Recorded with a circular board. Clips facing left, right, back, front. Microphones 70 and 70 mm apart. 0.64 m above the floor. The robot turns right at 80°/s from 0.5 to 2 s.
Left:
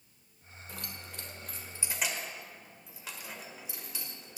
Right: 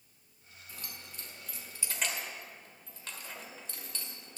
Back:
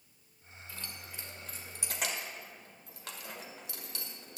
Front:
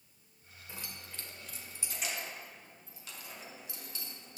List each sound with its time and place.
0.7 s keys jangling: 65° left, 1.4 m; by 4.4 s 170° left, 1.4 m